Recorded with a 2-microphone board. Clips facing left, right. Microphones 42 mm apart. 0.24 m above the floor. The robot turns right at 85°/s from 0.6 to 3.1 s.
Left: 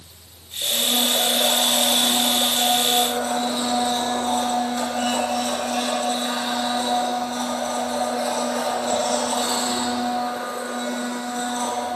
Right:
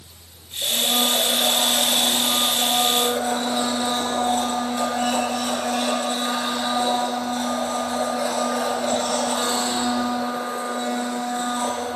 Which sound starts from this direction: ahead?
A blender, at 0.6 s.